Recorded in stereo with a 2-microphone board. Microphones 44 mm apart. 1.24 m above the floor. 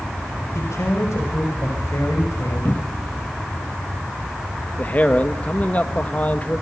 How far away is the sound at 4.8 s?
About 1.7 m.